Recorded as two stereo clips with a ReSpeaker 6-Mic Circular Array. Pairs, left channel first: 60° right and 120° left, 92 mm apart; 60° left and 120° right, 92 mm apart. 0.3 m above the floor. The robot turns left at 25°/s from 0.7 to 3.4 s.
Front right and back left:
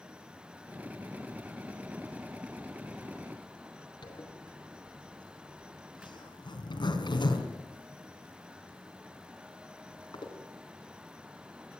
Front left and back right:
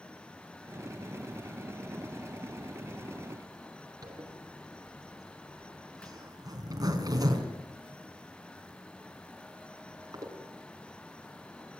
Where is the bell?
No bell in this recording.